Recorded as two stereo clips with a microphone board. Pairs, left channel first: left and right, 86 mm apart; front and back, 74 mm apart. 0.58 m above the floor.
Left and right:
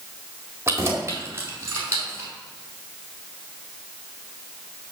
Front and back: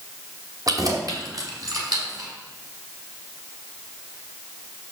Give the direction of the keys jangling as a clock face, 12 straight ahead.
5 o'clock.